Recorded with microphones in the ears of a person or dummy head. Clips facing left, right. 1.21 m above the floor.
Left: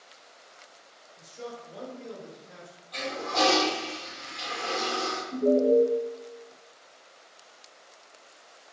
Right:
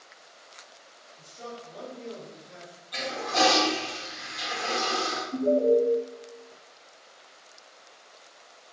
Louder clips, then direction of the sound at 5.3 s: Even; 45° left (ahead or behind).